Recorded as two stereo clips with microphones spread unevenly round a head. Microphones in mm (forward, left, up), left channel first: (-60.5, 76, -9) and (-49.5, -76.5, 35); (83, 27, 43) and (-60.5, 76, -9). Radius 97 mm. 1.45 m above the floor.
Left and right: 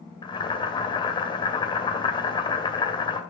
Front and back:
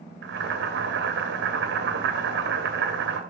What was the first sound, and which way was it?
Boiling, 160° left.